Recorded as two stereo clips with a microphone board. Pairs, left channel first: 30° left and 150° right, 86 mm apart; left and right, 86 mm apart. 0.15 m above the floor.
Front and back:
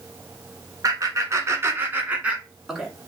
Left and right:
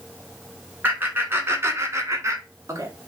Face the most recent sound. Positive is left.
turn(degrees=-65)